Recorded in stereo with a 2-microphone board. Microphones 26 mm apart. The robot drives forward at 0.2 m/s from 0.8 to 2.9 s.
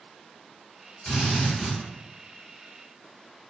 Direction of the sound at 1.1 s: 40° left (ahead or behind).